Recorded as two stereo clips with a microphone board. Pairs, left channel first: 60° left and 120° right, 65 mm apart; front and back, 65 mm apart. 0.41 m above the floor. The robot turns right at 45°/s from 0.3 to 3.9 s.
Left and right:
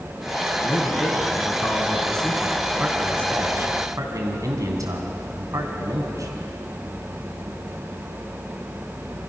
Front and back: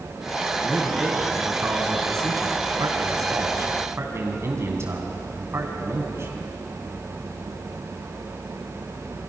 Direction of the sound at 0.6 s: 75° left.